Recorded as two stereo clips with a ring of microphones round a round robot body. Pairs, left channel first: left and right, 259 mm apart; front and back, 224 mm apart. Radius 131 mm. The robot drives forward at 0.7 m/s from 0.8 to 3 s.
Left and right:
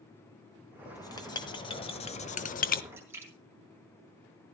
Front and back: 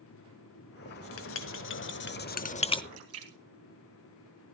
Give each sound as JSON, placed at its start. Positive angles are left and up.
{"t": 0.8, "sound": "writing", "azimuth_deg": 15, "distance_m": 1.7}
{"t": 2.9, "sound": "a splash", "azimuth_deg": -170, "distance_m": 3.0}